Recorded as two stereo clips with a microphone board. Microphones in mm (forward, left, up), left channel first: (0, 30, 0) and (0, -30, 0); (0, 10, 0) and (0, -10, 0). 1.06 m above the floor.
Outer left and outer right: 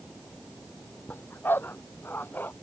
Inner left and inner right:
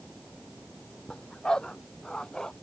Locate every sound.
1.1 s a dog barking: 35° left (ahead or behind)